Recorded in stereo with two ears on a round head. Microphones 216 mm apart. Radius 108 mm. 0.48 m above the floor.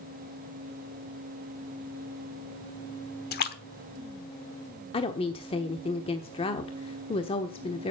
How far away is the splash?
About 1.2 m.